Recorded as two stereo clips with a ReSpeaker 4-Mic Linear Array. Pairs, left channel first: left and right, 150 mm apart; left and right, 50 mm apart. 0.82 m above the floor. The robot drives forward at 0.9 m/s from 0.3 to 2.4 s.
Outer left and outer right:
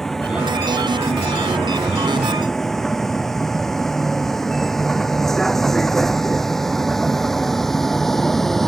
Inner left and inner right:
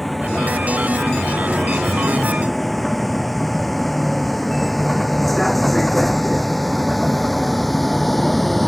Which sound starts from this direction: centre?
A vehicle, at 0.0 s.